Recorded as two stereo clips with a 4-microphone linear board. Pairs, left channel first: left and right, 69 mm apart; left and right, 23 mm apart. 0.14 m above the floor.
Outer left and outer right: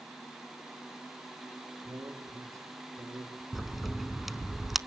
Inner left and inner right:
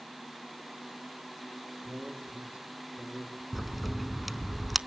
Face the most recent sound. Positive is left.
turn(degrees=-5)  # may be behind; listen again after turning